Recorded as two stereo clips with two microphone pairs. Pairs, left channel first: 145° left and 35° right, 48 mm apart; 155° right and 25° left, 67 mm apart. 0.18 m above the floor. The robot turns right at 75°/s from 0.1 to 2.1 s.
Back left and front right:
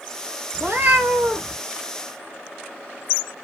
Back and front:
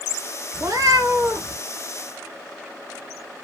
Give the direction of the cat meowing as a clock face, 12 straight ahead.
12 o'clock.